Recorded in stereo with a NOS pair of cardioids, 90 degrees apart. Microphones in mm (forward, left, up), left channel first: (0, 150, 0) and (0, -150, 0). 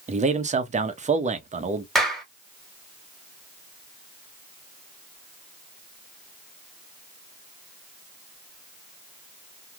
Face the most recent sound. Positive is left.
turn(degrees=0)